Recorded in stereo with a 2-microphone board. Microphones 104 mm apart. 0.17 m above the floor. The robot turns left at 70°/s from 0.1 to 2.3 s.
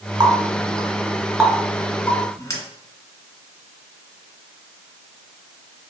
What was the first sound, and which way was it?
A running tap, 40° right (ahead or behind).